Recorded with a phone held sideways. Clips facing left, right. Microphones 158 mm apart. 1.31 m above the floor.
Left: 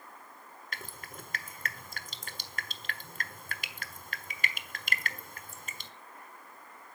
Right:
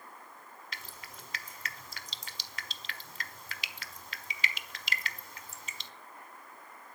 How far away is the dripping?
About 1.4 m.